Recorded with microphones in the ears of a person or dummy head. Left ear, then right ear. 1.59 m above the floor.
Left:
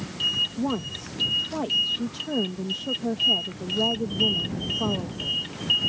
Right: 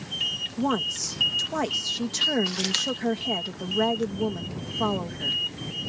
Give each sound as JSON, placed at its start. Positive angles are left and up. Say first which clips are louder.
{"t": 0.6, "sound": "a woman speaking", "louder": "right 4 dB", "side_deg": -60}